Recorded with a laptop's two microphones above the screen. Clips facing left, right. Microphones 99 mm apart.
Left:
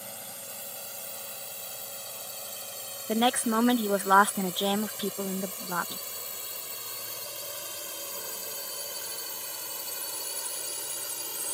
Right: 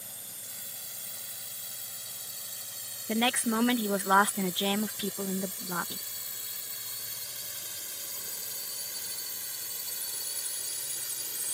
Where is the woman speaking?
25° left (ahead or behind).